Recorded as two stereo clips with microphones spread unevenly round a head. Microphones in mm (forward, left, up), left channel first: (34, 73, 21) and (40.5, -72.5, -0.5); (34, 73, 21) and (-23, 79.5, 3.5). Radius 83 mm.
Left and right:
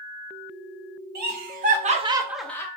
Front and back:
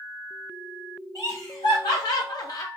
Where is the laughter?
75° right, 1.3 m; by 2.7 s 20° left, 0.7 m.